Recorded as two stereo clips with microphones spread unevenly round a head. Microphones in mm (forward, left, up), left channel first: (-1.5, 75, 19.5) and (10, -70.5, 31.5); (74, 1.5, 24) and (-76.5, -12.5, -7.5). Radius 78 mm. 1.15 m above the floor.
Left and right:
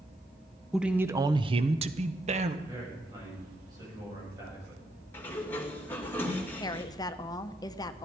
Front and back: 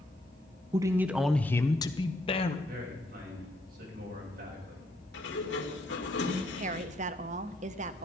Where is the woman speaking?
155° left, 0.9 m.